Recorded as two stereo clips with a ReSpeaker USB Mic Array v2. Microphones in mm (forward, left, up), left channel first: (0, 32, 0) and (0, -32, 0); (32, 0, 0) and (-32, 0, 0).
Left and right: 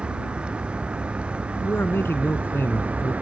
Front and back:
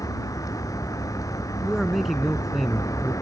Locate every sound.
0.0 s a vehicle: 20° right; by 3.2 s 25° right
1.6 s a man speaking: 95° left